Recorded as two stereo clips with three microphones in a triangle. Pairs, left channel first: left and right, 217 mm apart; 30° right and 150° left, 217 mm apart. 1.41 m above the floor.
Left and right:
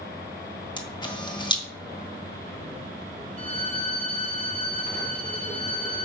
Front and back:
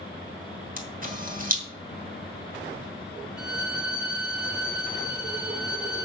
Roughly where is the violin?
Behind right.